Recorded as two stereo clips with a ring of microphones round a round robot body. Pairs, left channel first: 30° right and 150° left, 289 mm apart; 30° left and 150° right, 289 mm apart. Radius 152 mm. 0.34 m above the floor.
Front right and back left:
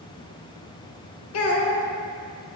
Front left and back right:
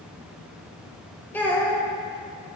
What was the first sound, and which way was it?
A child speaking, 55° right.